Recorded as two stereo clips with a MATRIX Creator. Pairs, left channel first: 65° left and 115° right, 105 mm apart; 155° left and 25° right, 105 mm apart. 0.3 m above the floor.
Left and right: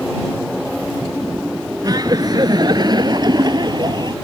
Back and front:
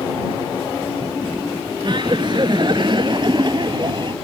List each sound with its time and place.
1.8 s laughter: 65° right